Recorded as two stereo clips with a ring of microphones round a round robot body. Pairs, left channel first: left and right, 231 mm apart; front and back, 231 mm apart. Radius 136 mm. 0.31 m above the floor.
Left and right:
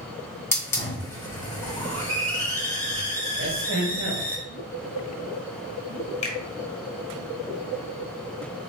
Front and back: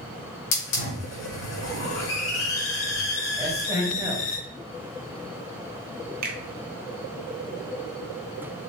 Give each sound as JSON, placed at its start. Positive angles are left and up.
{"t": 0.5, "sound": "a hiss", "azimuth_deg": 15, "distance_m": 2.5}
{"t": 3.4, "sound": "a man speaking", "azimuth_deg": -110, "distance_m": 1.9}
{"t": 6.2, "sound": "a finger snap", "azimuth_deg": 145, "distance_m": 1.2}